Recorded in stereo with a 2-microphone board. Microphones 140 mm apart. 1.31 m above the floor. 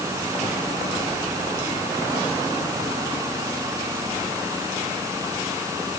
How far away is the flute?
I don't hear a flute.